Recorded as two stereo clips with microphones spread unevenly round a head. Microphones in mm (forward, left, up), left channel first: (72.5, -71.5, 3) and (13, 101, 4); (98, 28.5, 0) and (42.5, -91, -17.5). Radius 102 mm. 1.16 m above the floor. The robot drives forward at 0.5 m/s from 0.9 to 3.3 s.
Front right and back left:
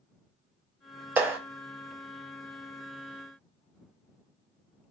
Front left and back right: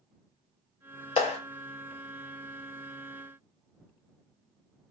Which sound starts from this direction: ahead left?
A clap, at 1.2 s.